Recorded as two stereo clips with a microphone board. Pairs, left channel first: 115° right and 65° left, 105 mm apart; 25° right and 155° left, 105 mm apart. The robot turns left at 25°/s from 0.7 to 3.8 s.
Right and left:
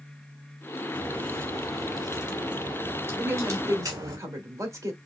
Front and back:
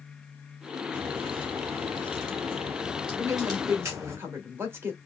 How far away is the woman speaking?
About 1.3 m.